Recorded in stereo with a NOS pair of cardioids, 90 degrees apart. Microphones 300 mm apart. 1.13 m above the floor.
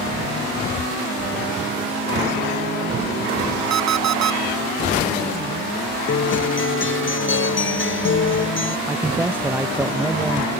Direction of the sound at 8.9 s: 5° right.